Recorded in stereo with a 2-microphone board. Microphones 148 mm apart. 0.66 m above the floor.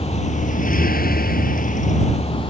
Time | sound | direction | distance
0.0 | a vehicle | 45° left (ahead or behind) | ?